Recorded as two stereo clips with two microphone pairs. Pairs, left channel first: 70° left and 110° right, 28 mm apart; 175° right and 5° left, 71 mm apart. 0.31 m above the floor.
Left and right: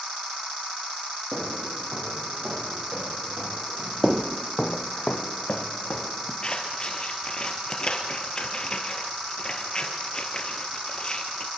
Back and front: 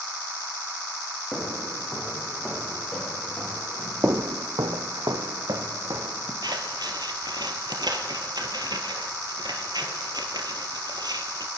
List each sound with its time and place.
1.3 s footsteps: 80° right, 8 m; by 4.1 s 100° right, 10 m
4.0 s footsteps: 45° right, 0.8 m; by 6.3 s 35° left, 2.5 m
6.4 s scissors: 10° left, 2 m